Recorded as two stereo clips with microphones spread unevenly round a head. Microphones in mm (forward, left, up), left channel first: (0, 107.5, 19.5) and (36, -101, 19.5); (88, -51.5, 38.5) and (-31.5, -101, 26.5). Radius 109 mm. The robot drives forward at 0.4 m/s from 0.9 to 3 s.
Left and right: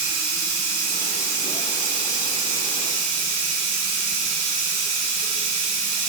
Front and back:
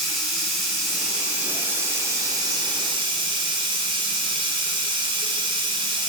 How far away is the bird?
I don't hear a bird.